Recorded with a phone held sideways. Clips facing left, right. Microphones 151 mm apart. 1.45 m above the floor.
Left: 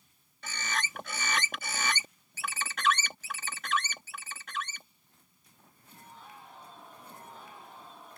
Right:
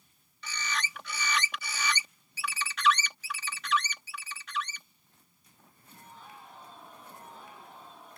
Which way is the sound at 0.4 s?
50° left (ahead or behind).